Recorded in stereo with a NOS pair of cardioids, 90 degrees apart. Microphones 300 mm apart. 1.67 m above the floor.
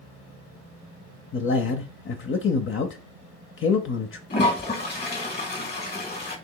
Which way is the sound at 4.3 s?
35° left.